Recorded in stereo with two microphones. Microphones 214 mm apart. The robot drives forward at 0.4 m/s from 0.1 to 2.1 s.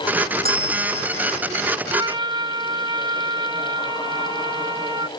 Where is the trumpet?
20° right (ahead or behind).